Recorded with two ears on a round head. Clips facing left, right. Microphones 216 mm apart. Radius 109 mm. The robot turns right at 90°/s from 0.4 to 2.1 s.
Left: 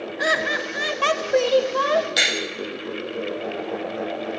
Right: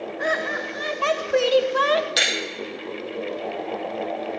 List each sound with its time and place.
0.2 s laughter: 95° left, 1.2 m; by 2.1 s 115° right, 1.2 m
2.2 s breaking glass: 5° right (ahead or behind), 6.5 m